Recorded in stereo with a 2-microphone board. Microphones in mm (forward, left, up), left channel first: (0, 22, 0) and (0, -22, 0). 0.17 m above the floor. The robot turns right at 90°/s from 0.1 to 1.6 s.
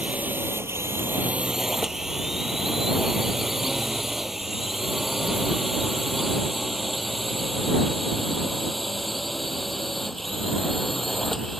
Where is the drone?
30° right (ahead or behind); by 11.6 s 5° left (ahead or behind).